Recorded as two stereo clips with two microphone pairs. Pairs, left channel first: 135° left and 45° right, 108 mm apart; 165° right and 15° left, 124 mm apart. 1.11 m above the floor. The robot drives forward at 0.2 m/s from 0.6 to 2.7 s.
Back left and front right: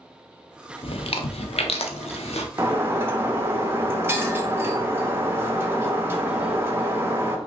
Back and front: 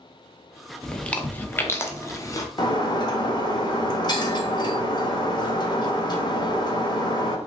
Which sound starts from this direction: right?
Breaking glass, at 2.6 s.